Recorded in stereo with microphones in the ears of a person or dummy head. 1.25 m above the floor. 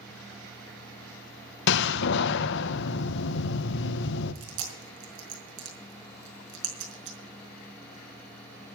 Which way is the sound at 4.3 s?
70° right (ahead or behind).